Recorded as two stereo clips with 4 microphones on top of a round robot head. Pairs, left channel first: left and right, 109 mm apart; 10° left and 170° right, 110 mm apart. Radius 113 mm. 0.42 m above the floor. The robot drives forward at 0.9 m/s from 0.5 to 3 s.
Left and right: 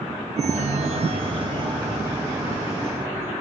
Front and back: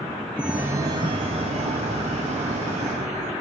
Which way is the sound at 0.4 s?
90° right.